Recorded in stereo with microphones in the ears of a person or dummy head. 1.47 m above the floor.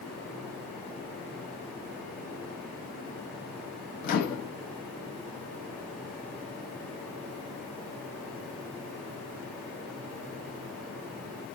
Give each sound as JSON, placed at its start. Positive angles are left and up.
{"t": 4.0, "sound": "a microwave", "side_deg": 50, "distance_m": 0.7}